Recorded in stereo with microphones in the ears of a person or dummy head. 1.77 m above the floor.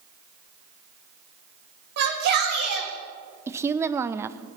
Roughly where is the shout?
Right.